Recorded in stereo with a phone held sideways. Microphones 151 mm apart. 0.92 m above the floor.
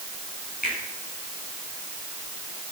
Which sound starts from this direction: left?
A finger snap, at 0.6 s.